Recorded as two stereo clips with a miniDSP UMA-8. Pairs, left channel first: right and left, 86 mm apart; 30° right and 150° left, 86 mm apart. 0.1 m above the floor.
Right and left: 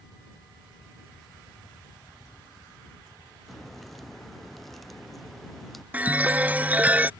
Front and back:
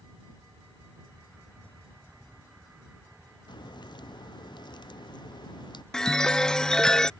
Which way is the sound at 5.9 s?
40° left.